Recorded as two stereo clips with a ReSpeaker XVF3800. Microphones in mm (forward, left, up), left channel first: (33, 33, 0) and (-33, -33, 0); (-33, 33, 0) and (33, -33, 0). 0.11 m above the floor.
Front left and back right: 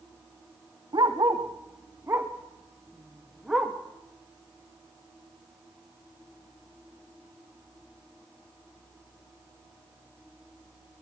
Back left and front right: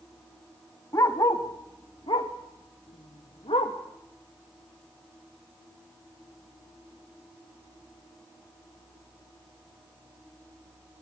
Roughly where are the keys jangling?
I don't hear keys jangling.